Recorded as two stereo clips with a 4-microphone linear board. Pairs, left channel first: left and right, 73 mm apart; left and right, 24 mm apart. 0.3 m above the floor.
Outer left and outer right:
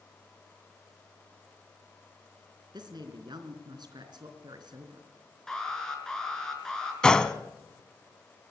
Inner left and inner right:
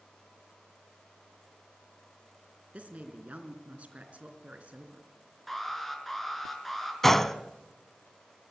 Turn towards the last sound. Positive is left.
turn(degrees=15)  # may be behind; listen again after turning